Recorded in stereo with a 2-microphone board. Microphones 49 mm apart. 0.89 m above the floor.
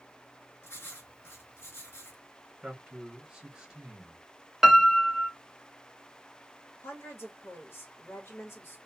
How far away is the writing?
About 1.4 m.